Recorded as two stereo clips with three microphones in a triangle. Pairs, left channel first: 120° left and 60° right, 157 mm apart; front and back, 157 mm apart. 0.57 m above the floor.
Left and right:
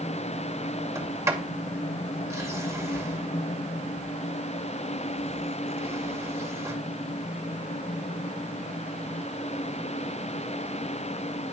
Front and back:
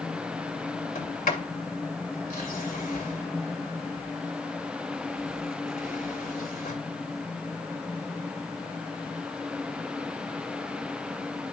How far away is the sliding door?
About 2.5 m.